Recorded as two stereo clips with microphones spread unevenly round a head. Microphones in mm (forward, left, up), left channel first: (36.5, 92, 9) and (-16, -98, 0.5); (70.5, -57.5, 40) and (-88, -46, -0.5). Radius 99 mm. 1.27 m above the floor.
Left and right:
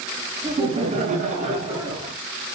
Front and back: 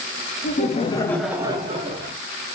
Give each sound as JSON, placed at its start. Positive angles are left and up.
{"t": 0.4, "sound": "laughter", "azimuth_deg": -45, "distance_m": 0.8}